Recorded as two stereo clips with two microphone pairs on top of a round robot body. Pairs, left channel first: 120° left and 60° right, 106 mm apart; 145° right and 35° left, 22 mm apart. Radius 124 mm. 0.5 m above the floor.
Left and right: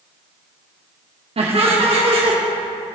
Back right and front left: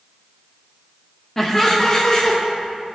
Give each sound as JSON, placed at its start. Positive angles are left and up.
{"t": 1.4, "sound": "laughter", "azimuth_deg": -70, "distance_m": 1.2}